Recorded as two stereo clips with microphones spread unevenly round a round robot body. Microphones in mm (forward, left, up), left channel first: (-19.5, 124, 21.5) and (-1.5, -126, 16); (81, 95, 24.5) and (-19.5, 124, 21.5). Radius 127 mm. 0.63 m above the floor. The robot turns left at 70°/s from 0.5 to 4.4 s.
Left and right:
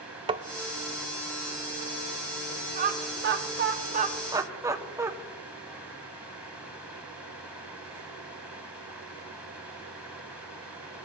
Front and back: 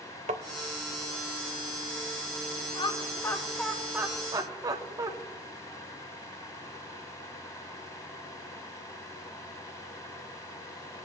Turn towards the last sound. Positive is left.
turn(degrees=-160)